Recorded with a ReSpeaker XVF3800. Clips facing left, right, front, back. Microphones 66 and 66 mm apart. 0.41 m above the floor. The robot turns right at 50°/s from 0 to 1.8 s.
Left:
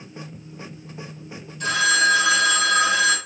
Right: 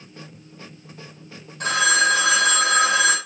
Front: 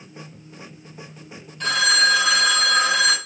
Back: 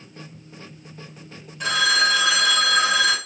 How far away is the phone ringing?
About 0.8 m.